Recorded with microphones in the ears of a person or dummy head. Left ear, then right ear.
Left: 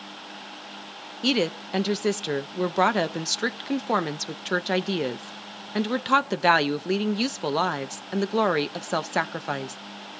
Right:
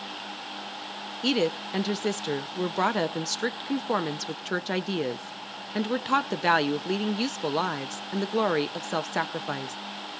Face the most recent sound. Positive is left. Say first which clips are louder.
# left 1 dB
turn(degrees=10)  # may be behind; listen again after turning